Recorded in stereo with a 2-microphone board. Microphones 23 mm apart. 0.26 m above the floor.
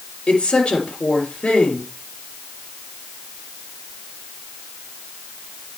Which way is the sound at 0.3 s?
40° left (ahead or behind).